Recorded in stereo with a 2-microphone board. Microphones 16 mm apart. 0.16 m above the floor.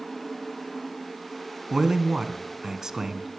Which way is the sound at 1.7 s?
35° right (ahead or behind).